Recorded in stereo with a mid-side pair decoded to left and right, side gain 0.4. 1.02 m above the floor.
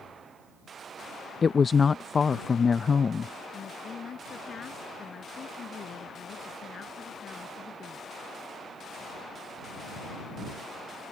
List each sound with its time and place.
1.4 s a woman speaking: 40° left
3.5 s a woman speaking: 55° left